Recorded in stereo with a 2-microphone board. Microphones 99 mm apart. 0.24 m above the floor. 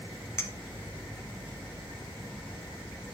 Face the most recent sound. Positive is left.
turn(degrees=25)  # may be behind; listen again after turning